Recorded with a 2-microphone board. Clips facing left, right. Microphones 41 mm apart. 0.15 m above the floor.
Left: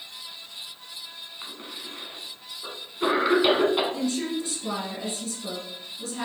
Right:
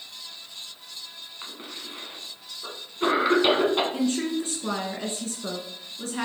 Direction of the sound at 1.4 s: 5° right (ahead or behind).